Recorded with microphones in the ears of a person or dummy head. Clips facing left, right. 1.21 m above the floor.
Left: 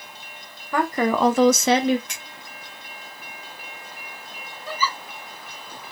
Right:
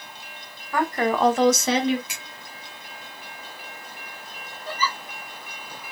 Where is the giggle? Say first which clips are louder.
Left 1 dB; 5° left (ahead or behind), 3 m.